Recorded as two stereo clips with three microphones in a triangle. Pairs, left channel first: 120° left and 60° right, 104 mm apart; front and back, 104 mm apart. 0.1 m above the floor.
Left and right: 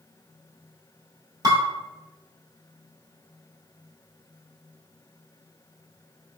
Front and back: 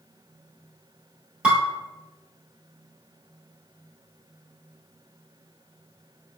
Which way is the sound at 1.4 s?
100° right.